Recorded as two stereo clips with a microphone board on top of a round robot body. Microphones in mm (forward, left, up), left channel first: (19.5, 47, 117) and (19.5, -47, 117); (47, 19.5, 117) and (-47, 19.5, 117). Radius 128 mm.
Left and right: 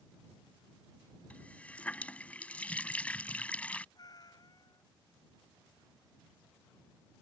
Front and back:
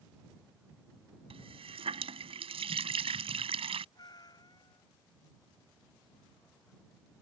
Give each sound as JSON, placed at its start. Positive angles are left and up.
{"t": 1.3, "sound": "a running tap", "azimuth_deg": 165}
{"t": 4.0, "sound": "a cat meowing", "azimuth_deg": 45}